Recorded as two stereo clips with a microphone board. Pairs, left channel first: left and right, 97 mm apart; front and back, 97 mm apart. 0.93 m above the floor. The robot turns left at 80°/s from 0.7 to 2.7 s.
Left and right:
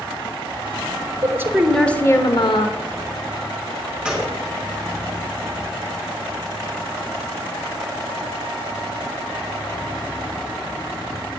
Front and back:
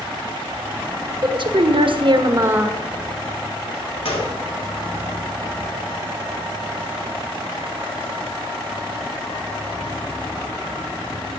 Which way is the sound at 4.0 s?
10° right.